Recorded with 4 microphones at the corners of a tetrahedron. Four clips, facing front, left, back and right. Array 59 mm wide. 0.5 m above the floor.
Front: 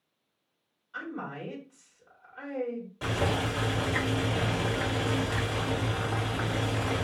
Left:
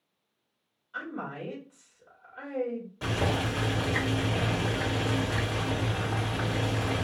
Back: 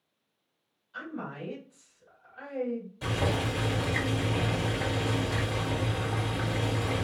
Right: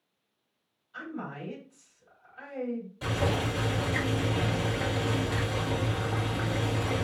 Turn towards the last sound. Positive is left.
turn(degrees=30)